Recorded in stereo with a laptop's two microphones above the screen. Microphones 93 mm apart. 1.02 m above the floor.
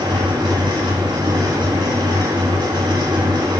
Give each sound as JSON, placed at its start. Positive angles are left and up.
{"t": 0.0, "sound": "a fan", "side_deg": -50, "distance_m": 1.8}